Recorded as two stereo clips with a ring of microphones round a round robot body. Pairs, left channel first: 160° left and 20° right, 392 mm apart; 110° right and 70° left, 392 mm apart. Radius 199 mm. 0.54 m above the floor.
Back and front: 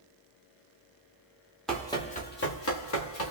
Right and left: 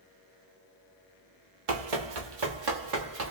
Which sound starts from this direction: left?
Running footsteps, at 1.7 s.